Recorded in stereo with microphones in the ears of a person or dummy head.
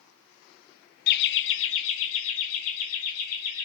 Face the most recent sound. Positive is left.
turn(degrees=85)